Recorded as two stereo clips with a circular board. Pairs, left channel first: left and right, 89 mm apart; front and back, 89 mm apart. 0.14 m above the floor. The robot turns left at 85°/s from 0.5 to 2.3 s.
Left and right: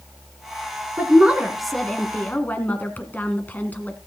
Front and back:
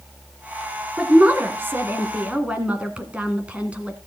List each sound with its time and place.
1.0 s a woman speaking: 125° right, 1.7 m; by 4.0 s 125° left, 1.7 m